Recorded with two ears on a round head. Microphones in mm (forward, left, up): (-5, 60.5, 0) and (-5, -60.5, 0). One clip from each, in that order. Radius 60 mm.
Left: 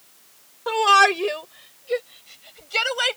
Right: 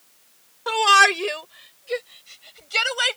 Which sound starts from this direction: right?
A shout, at 0.7 s.